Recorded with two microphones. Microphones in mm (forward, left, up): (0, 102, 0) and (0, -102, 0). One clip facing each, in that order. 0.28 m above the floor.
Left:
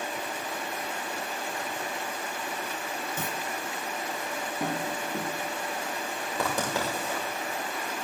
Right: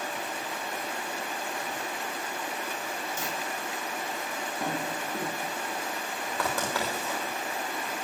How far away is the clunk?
About 1.3 m.